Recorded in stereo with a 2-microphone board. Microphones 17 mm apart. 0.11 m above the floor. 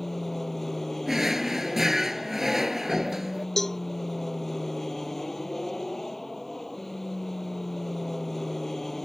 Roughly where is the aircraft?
Centre.